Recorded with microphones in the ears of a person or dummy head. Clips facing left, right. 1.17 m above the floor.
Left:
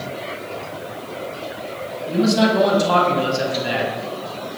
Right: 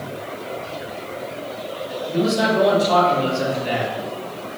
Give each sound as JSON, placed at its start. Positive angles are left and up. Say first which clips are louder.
{"t": 2.1, "sound": "a man speaking", "louder": "left 3 dB", "side_deg": 70, "distance_m": 1.4}